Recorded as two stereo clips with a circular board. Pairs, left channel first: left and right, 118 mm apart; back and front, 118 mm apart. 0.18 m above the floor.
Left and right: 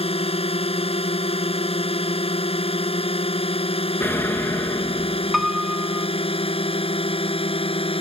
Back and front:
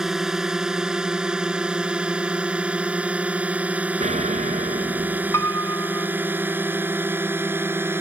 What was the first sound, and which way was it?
A drone, 85° left.